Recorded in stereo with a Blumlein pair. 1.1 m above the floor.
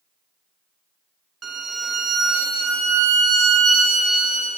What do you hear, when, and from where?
1.4 s a violin: 20° right, 0.6 m